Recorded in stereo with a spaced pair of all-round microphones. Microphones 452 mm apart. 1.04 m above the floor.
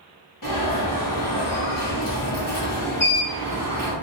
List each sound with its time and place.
0.4 s an alarm: 40° left (ahead or behind), 1.4 m